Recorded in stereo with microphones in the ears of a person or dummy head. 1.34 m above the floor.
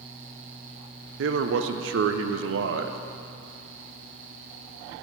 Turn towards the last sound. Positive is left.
turn(degrees=-70)  # may be behind; listen again after turning